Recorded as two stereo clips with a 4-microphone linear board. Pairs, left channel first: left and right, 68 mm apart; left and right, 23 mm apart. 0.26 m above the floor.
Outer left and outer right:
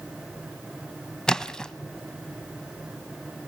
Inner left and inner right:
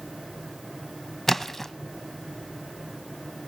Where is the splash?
10° left (ahead or behind), 0.7 m.